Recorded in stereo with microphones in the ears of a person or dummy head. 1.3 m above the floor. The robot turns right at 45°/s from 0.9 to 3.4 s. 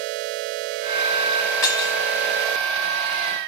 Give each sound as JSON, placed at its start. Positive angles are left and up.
{"t": 1.6, "sound": "breaking glass", "side_deg": 10, "distance_m": 2.5}